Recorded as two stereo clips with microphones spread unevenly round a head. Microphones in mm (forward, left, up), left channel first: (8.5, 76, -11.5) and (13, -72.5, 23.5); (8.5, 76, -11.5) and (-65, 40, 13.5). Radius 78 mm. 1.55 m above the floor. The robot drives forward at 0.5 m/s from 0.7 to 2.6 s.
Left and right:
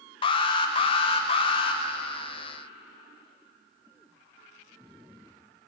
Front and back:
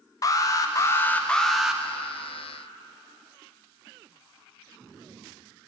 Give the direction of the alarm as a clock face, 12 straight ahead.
10 o'clock.